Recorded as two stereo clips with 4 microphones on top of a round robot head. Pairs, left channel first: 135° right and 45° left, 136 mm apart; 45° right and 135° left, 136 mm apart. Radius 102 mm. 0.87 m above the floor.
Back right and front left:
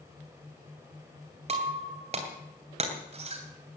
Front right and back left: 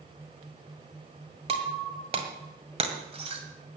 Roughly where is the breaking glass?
Left.